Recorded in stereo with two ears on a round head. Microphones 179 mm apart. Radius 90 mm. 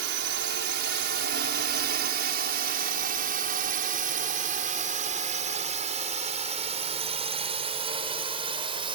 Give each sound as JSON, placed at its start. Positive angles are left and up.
{"t": 0.0, "sound": "a drone", "side_deg": -60}